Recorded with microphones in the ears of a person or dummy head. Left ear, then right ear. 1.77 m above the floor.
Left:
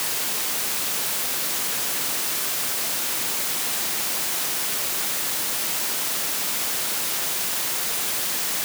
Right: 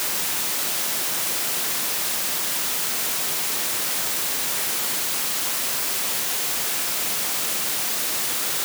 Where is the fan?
I don't hear a fan.